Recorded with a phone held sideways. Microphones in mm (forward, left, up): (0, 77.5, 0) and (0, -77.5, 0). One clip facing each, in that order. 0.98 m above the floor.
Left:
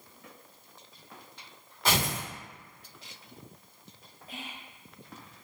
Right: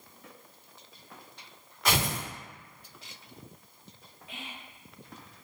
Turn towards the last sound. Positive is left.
turn(degrees=40)  # may be behind; listen again after turning